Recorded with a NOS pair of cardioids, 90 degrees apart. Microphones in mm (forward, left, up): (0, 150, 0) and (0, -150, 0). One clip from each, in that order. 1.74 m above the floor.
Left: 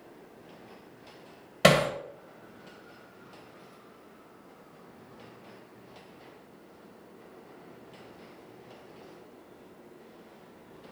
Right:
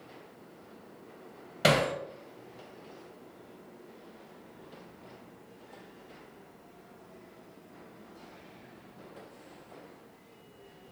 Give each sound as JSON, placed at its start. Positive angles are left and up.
{"t": 1.6, "sound": "hammering", "azimuth_deg": 40, "distance_m": 2.0}